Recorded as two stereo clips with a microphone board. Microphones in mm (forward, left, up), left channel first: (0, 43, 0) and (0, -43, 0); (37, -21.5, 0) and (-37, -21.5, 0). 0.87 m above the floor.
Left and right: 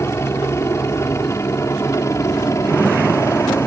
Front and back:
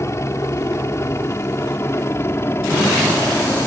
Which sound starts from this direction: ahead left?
A helicopter, at 0.0 s.